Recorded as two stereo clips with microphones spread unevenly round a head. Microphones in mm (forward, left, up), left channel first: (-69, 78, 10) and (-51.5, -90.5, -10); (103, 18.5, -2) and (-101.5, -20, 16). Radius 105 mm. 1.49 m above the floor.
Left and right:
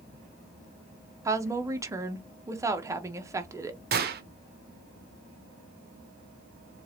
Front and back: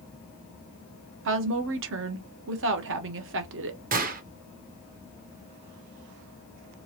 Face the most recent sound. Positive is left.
turn(degrees=-115)